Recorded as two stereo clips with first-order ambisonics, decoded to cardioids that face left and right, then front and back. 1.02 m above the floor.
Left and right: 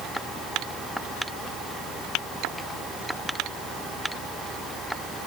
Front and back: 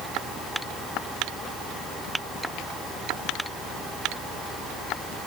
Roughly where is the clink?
No clink in this recording.